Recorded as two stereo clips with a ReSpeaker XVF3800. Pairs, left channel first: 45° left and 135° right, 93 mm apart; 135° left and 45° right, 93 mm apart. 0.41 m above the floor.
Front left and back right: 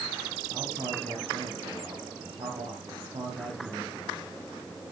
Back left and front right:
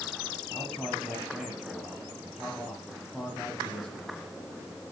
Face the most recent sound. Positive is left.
turn(degrees=-135)